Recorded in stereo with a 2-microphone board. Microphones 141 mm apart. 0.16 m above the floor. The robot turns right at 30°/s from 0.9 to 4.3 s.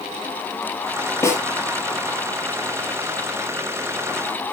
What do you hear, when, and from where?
1.2 s a snare drum: 20° left (ahead or behind), 4.5 m; by 1.4 s 15° left (ahead or behind), 4.5 m